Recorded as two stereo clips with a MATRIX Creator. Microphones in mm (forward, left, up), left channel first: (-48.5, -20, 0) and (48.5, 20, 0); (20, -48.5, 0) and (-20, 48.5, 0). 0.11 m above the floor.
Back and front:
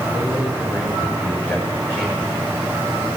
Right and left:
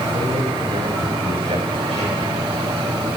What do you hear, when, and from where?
0.1 s a man speaking: 140° left, 9.5 m